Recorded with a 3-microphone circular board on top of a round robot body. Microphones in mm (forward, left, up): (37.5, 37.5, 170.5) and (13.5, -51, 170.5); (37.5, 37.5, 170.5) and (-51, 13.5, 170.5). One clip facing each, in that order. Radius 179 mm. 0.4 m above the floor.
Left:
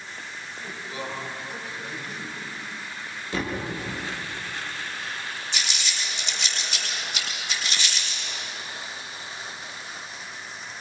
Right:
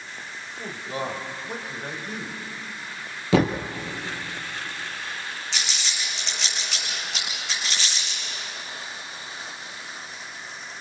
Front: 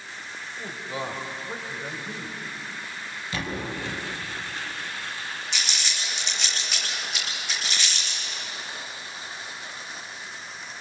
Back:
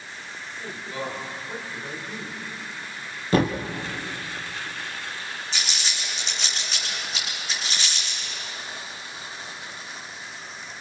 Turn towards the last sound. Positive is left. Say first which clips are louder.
# even, back 1 dB
turn(degrees=-105)